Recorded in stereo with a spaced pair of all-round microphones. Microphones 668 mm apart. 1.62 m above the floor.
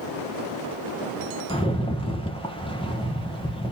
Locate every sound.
1.5 s a rattle: 10° left (ahead or behind), 1.5 m